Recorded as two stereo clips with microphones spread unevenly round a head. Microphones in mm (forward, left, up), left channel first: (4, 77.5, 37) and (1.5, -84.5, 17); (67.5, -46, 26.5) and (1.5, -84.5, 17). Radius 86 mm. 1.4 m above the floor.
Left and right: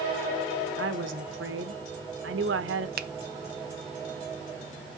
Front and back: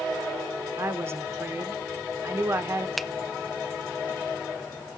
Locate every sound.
0.8 s a woman speaking: 95° right, 1.3 m
3.0 s a finger snap: 55° right, 0.6 m